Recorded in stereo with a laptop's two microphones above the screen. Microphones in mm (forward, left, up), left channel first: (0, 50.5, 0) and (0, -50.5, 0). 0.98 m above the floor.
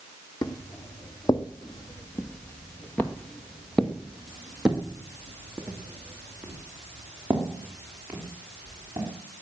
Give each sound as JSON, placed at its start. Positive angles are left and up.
{"t": 0.4, "sound": "footsteps", "side_deg": 35, "distance_m": 1.8}